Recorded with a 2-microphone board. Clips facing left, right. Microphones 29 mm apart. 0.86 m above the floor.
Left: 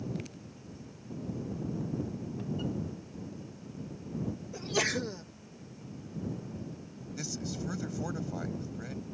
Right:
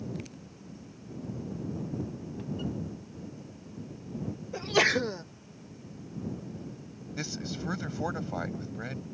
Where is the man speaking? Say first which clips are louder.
Right 2 dB; 30° right (ahead or behind).